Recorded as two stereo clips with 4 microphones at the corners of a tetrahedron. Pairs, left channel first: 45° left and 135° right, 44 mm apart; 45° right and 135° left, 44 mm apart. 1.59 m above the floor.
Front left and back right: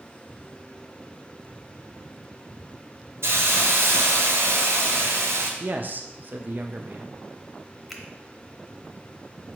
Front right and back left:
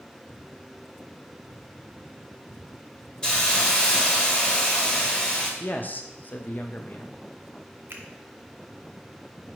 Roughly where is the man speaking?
Right.